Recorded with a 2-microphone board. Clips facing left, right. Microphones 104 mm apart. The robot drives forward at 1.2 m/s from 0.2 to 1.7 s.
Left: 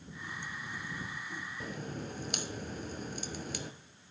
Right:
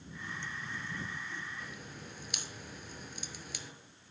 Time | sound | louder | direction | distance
1.6 | a crack | left 7 dB | 40° left (ahead or behind) | 0.7 m